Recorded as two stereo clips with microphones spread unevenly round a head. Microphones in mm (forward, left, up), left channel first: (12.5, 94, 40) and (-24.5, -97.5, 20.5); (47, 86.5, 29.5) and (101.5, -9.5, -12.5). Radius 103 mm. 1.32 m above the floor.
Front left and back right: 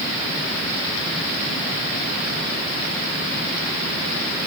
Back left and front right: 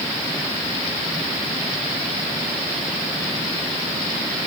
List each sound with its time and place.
Only background noise.